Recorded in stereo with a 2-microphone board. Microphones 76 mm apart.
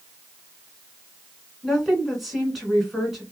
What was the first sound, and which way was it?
A woman speaking, centre (ahead or behind).